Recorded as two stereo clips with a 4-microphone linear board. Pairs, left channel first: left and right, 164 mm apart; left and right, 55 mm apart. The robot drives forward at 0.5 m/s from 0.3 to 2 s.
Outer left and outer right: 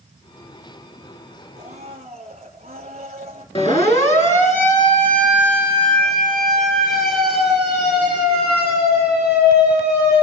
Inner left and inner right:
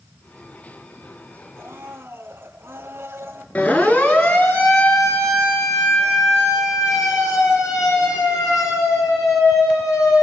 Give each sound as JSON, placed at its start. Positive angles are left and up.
{"t": 1.6, "sound": "a blender", "side_deg": -45, "distance_m": 3.0}
{"t": 3.5, "sound": "a siren", "side_deg": 40, "distance_m": 4.0}